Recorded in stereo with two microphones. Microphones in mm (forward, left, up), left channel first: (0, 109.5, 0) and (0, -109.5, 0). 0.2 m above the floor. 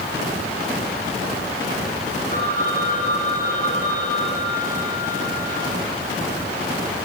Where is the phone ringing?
40° left (ahead or behind), 6 m.